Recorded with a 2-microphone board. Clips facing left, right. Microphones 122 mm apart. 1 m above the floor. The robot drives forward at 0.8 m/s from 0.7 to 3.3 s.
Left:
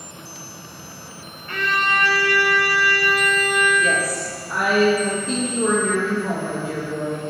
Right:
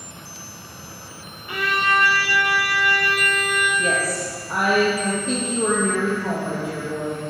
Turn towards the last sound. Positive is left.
turn(degrees=-20)  # may be behind; listen again after turning